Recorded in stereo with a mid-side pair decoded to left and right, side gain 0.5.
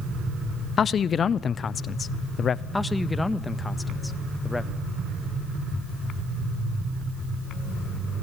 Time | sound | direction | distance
0.8 | a man speaking | 45° left | 0.9 m
2.7 | a man speaking | 15° left | 1.7 m